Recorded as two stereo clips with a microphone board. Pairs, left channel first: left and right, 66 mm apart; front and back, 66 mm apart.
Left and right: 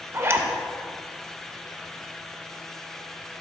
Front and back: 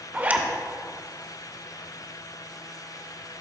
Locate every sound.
0.1 s a zipper: 125° right, 0.6 m